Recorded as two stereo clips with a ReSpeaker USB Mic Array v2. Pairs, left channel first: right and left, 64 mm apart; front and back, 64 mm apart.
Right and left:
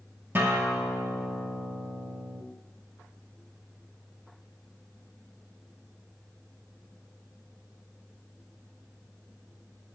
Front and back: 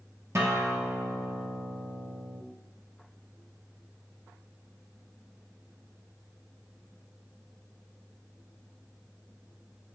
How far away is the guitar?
About 2.5 m.